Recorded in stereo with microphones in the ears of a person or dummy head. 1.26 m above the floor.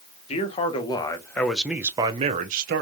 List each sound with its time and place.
0.3 s a man speaking: 35° left (ahead or behind), 1.2 m; by 2.8 s 55° right (ahead or behind), 0.8 m